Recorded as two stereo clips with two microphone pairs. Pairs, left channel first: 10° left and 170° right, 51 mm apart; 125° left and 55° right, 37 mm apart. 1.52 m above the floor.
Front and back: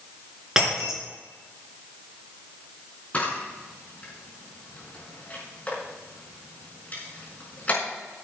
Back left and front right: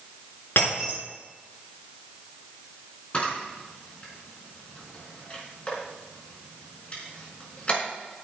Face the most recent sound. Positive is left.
turn(degrees=70)